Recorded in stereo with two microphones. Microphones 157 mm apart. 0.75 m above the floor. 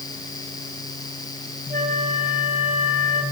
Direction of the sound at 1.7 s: 55° right (ahead or behind).